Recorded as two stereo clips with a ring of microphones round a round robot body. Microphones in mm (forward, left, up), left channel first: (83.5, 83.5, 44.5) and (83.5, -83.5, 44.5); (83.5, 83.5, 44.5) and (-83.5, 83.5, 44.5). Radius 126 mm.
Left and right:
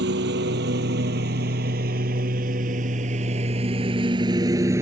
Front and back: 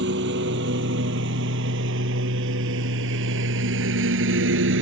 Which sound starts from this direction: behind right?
A lawn mower, at 0.0 s.